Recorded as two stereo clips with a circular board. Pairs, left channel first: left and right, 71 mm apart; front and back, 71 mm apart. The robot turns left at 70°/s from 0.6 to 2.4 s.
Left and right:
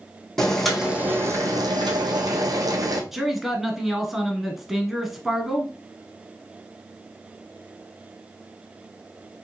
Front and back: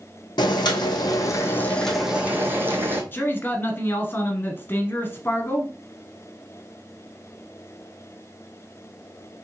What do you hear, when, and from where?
0.4 s boiling: 5° left, 1.0 m; by 3.0 s 120° right, 1.0 m
3.1 s a man speaking: 5° right, 1.1 m